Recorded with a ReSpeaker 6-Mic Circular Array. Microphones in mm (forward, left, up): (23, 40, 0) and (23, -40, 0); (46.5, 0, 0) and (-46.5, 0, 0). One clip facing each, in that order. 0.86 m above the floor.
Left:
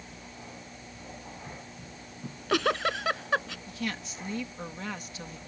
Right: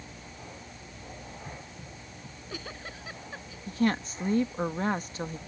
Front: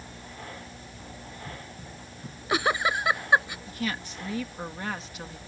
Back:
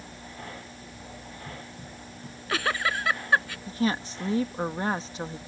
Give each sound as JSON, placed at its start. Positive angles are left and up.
{"t": 2.2, "sound": "a giggle", "azimuth_deg": 70}
{"t": 3.7, "sound": "a woman speaking", "azimuth_deg": -130}